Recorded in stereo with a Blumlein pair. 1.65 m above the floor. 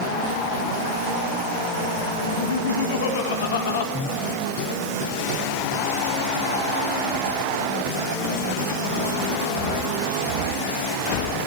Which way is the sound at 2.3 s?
55° left.